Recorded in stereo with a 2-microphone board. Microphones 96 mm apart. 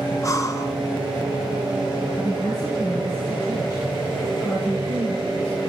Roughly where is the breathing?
Left.